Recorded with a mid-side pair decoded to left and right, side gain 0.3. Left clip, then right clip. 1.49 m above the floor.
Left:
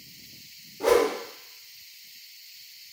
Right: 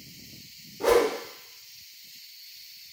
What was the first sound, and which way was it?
A whoosh, 5° right.